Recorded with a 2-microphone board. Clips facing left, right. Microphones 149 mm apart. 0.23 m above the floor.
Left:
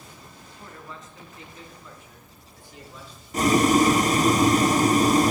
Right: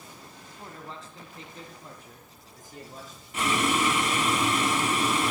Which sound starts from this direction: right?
A man speaking, at 0.5 s.